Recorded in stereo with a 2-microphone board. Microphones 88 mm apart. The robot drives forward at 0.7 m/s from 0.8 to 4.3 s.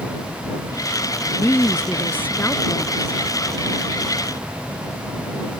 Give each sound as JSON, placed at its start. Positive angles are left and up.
{"t": 1.4, "sound": "a woman speaking", "side_deg": 25}